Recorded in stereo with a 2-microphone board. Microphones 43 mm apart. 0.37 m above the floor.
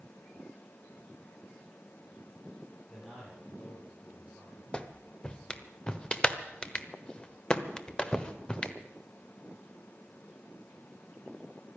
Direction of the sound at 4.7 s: 25° left (ahead or behind).